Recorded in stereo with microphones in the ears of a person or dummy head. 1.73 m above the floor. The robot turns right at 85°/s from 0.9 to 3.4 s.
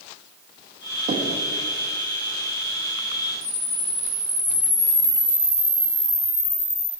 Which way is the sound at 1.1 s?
35° right (ahead or behind).